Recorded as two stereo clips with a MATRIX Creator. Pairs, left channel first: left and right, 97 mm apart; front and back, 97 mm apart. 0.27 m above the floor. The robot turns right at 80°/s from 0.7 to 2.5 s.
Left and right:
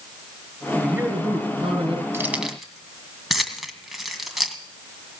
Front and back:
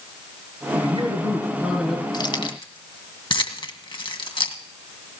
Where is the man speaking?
Straight behind, 5 m; by 2.0 s 75° right, 5 m.